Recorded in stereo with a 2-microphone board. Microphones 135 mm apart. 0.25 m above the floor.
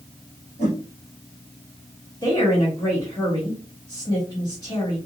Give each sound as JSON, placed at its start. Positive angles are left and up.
{"t": 0.6, "sound": "a whoosh", "side_deg": 60, "distance_m": 3.0}
{"t": 2.2, "sound": "a woman speaking", "side_deg": 30, "distance_m": 1.7}